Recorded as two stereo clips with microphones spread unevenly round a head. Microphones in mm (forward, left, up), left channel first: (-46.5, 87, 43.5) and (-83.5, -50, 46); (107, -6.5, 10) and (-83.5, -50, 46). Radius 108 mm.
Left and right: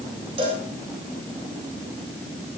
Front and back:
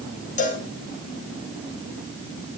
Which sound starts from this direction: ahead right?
A cowbell, at 0.4 s.